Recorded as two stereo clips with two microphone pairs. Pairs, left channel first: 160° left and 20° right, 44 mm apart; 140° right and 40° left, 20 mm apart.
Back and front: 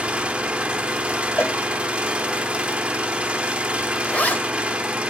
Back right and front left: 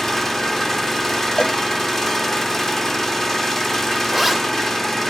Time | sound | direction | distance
0.0 | an engine running | 75° right | 1.0 m
1.4 | a cowbell | straight behind | 1.2 m
4.0 | a zipper | 125° left | 1.2 m